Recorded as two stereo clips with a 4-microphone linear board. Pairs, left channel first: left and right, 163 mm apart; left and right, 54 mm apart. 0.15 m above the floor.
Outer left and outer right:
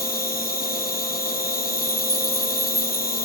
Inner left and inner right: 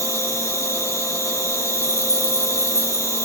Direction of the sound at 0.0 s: 60° left (ahead or behind).